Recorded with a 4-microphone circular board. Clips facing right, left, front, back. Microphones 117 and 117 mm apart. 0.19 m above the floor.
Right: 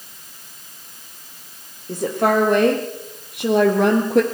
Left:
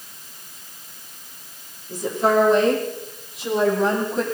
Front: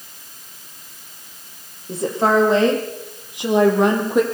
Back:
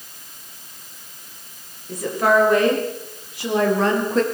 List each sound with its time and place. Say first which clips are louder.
1.9 s a woman speaking: right 1 dB, front 1 dB; 60° right, 7.5 m; by 4.2 s 75° right, 5.5 m